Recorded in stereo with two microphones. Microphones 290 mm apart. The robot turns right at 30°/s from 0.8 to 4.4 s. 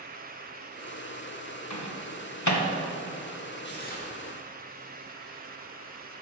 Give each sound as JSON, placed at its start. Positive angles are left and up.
{"t": 1.7, "sound": "a microwave", "side_deg": 65, "distance_m": 1.1}
{"t": 3.6, "sound": "tearing paper", "side_deg": 40, "distance_m": 1.6}